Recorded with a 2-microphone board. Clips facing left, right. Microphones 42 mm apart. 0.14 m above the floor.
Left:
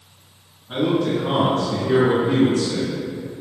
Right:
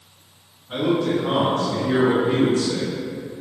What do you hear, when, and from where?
0.7 s a man speaking: 15° left (ahead or behind), 1.7 m; by 2.9 s 30° right (ahead or behind), 1.9 m